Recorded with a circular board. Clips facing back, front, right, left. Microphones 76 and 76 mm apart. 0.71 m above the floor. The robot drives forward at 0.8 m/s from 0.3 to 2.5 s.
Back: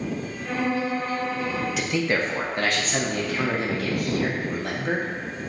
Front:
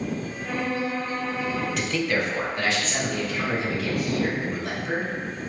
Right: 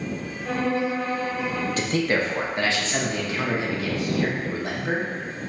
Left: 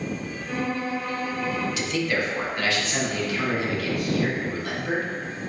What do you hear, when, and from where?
0.5 s a violin: 80° right, 0.5 m; by 1.7 s 150° right, 1.0 m
1.8 s a man speaking: 95° right, 0.5 m; by 5.1 s 150° right, 0.8 m